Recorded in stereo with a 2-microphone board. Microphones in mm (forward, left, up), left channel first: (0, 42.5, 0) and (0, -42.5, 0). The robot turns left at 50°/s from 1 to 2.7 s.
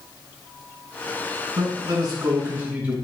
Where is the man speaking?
105° right, 3 m; by 3.0 s 160° right, 3 m.